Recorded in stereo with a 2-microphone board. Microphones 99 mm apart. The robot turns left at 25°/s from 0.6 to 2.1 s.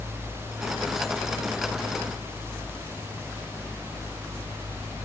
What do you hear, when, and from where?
Only background noise.